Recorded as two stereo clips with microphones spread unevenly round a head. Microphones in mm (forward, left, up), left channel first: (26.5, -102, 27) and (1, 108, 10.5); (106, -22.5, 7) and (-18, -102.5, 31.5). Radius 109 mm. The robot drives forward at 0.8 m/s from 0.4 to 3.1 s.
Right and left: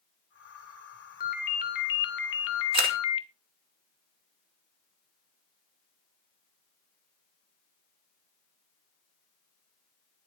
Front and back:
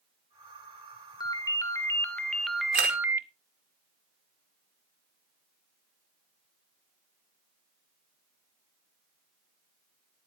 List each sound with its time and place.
1.2 s a ringtone: 35° right, 2 m; by 3.3 s 80° right, 1.2 m
2.7 s a camera shutter: 160° left, 2 m